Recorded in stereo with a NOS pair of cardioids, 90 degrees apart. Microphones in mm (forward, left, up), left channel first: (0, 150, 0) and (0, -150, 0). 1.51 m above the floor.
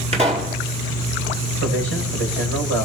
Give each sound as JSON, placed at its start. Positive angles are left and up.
{"t": 0.1, "sound": "a pop", "azimuth_deg": -20, "distance_m": 4.5}
{"t": 1.6, "sound": "a man speaking", "azimuth_deg": -50, "distance_m": 6.5}